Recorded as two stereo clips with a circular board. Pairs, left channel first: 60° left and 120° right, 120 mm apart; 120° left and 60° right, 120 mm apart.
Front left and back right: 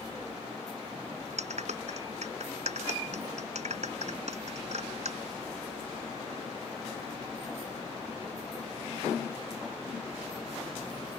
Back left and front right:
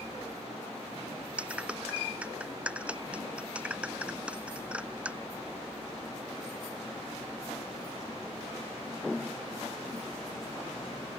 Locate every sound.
1.4 s a clap: 140° right